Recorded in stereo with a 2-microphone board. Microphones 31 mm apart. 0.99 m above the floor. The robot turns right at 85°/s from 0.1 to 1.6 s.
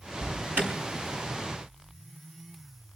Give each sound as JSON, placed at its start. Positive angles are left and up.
{"t": 0.2, "sound": "an alarm", "side_deg": -75, "distance_m": 7.0}